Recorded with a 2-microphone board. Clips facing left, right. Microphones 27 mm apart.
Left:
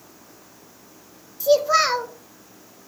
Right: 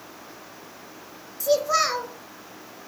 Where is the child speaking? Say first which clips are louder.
Left 4 dB; 20° left (ahead or behind), 0.7 m.